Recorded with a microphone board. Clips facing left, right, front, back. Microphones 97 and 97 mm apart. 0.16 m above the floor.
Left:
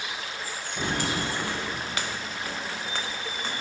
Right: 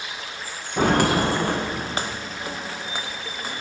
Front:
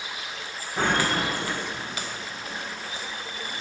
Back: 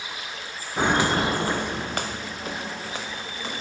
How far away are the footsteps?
About 0.8 m.